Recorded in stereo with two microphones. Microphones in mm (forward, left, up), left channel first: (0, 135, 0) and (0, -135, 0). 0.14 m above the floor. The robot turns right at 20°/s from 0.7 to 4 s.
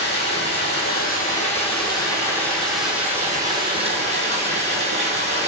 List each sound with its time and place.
0.0 s running water: 140° left, 1.0 m; by 5.5 s 155° right, 1.0 m